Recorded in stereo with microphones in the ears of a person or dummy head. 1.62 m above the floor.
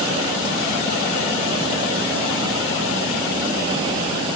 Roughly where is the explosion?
No explosion in this recording.